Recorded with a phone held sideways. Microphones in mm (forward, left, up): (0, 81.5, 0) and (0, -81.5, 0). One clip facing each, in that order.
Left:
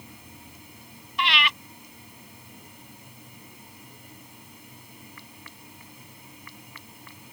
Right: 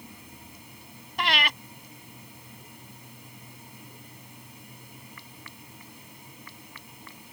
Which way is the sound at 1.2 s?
50° right (ahead or behind).